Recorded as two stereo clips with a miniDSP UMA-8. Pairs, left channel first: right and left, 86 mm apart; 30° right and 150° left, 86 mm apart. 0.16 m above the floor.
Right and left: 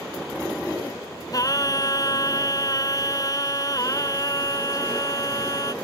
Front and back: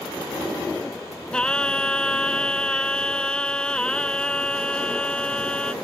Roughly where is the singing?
Right.